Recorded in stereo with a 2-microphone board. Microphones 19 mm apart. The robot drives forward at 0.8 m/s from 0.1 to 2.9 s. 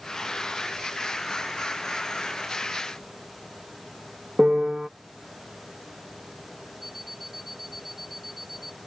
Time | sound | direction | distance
4.4 | a piano | 40° right (ahead or behind) | ?
6.8 | an alarm clock | 10° right (ahead or behind) | ?